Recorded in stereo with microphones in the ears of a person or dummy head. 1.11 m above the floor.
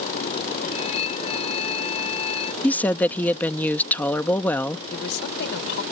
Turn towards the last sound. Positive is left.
turn(degrees=60)  # may be behind; listen again after turning